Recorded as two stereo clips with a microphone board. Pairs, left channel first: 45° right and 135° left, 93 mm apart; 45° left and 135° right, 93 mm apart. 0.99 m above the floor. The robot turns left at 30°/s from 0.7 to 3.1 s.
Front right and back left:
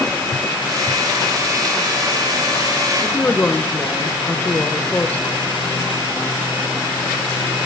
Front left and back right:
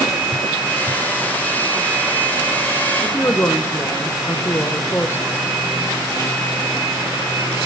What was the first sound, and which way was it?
A woman speaking, 15° left.